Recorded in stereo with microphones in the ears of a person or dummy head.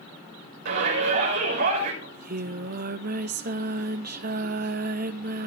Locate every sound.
0.7 s a shout: 60° right (ahead or behind), 6 m
2.0 s singing: 55° right (ahead or behind), 1.0 m